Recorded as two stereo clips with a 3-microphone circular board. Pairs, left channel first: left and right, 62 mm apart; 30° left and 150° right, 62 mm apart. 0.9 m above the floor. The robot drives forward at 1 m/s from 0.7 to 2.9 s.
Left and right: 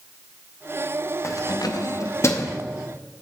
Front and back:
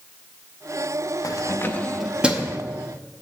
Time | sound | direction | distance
1.2 | keys jangling | 50° left | 0.7 m